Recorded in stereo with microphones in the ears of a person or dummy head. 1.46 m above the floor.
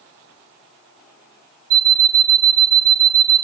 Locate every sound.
1.7 s an alarm clock: 50° right (ahead or behind), 1.1 m